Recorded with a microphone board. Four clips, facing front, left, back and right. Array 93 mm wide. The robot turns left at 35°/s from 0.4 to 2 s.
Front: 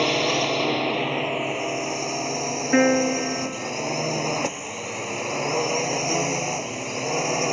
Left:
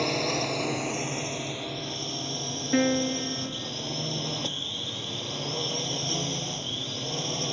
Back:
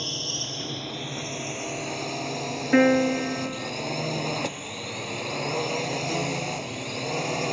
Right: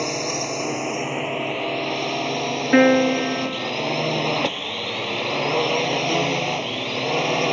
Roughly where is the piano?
Right.